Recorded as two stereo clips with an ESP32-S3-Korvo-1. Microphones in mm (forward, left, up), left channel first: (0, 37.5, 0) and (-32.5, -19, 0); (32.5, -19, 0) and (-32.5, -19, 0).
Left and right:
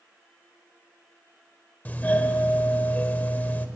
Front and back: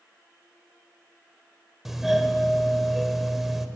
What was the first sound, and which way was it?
A doorbell, 100° left.